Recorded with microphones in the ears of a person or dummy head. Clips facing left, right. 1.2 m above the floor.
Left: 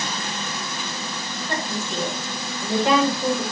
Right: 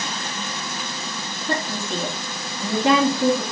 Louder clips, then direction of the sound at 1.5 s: Right 3 dB; 50° right (ahead or behind).